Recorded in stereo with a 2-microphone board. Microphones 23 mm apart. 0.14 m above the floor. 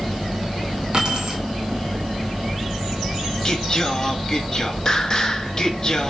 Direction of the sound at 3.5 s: 25° left (ahead or behind).